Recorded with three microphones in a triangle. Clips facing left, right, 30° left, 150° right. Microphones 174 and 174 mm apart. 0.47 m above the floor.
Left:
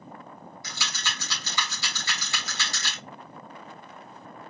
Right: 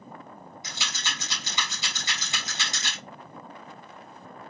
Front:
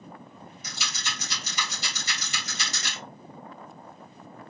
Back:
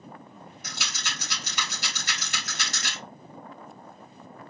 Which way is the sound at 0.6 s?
160° right.